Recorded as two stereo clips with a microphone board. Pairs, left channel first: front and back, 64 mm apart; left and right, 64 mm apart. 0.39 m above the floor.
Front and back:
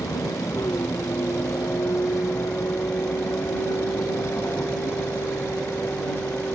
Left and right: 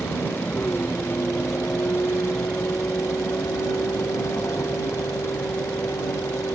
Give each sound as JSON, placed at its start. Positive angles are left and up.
{"t": 0.0, "sound": "a vehicle", "azimuth_deg": 30}